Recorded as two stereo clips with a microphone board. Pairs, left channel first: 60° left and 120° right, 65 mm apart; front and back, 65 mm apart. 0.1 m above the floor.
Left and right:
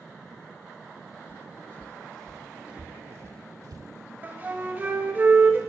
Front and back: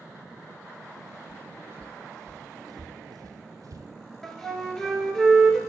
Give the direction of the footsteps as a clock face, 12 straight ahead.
8 o'clock.